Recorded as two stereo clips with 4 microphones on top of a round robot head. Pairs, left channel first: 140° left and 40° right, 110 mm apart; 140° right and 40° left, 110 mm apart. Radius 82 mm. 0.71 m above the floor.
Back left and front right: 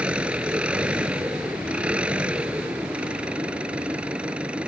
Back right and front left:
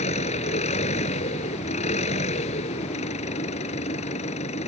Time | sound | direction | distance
0.0 | an engine running | 120° right | ?